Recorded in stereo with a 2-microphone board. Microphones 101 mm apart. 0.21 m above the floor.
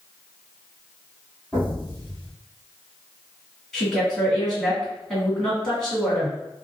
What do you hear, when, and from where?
1.5 s an explosion: 15° left (ahead or behind), 1.6 m
3.7 s a woman speaking: centre (ahead or behind), 1.8 m